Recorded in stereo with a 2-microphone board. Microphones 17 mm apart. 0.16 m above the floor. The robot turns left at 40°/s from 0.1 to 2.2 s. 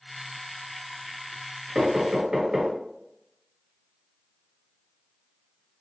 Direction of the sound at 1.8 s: 25° right (ahead or behind).